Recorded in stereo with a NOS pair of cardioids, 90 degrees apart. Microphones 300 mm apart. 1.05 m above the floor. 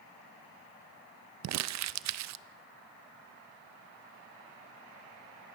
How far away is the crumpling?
About 0.5 m.